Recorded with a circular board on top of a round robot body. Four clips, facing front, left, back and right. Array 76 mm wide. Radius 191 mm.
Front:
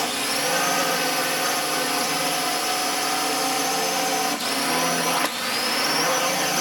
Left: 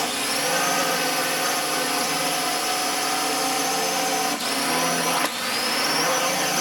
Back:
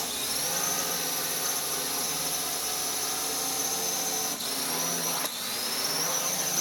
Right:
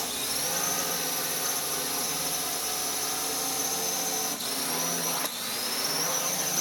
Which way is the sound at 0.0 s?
45° left.